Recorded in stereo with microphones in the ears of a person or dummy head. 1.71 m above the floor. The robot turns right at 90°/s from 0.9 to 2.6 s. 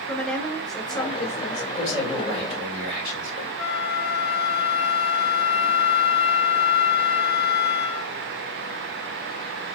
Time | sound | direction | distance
0.1 | a woman speaking | straight ahead | 0.9 m
1.8 | a man speaking | 150° left | 2.5 m
3.6 | a flute | 5° right (ahead or behind) | 3 m